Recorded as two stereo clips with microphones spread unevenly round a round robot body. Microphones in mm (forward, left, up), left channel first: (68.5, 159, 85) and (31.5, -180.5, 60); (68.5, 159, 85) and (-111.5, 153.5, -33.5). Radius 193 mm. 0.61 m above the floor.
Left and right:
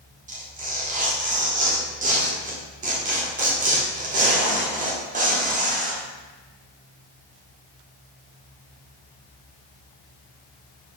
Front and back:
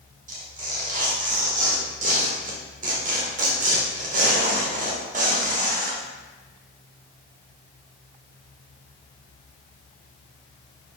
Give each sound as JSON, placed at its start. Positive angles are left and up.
{"t": 0.3, "sound": "tearing paper", "azimuth_deg": -160, "distance_m": 1.3}